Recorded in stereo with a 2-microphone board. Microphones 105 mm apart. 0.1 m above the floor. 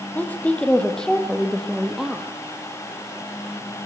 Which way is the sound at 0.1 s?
15° left (ahead or behind).